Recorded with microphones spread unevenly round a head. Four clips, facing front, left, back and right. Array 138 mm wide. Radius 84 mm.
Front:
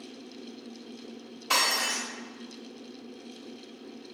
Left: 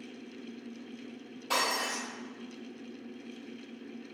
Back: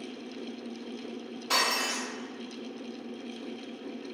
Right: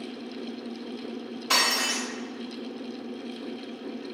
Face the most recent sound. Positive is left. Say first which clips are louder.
# right 3 dB, front 1 dB
turn(degrees=70)